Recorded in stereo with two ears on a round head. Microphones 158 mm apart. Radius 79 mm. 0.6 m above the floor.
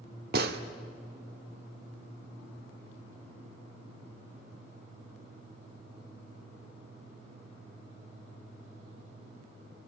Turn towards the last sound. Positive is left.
turn(degrees=-60)  # may be behind; listen again after turning